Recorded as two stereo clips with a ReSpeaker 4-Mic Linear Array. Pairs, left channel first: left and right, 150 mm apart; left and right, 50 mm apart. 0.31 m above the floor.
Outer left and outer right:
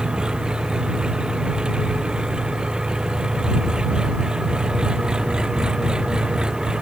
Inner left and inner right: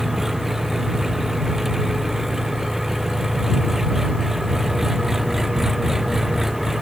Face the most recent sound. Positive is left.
turn(degrees=-5)  # may be behind; listen again after turning